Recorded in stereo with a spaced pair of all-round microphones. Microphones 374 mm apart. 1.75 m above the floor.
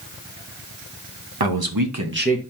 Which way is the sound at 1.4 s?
80° right.